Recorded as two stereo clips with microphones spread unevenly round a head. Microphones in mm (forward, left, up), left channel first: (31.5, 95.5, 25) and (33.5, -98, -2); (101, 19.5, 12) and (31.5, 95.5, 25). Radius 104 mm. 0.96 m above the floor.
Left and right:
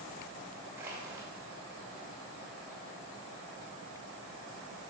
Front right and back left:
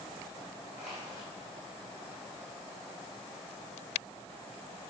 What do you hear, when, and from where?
0.8 s crushing: 170° right, 1.6 m